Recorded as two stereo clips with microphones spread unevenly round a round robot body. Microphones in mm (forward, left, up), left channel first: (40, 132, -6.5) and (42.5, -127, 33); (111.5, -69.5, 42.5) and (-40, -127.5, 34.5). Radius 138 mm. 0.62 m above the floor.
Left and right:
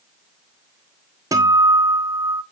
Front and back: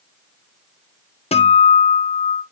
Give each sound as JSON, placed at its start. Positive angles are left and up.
{"t": 1.3, "sound": "a guitar", "azimuth_deg": -10, "distance_m": 1.2}